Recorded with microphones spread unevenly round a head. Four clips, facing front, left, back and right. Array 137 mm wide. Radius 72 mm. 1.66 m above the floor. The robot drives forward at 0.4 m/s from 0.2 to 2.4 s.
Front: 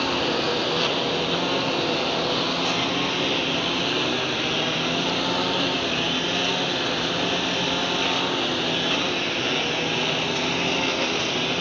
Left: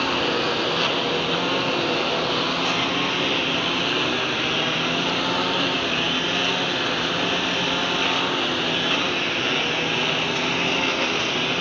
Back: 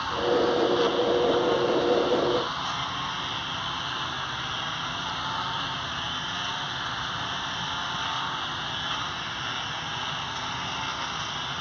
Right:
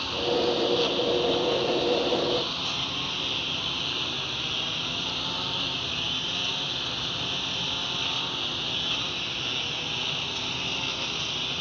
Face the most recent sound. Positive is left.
turn(degrees=60)